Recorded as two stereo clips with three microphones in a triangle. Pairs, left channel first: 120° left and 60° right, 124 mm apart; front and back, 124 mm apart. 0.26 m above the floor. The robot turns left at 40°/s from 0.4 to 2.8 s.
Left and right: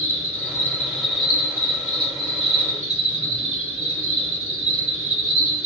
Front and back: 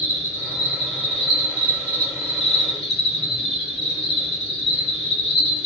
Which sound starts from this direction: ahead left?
An insect, at 0.0 s.